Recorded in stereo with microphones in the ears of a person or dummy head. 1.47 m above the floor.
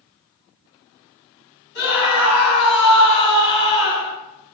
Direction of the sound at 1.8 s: 65° left (ahead or behind).